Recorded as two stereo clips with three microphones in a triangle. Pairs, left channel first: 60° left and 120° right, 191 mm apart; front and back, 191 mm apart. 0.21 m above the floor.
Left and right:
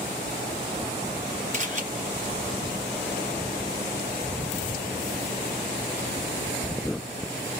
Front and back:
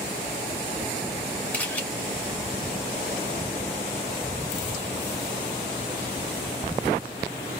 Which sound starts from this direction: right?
A camera shutter, at 1.5 s.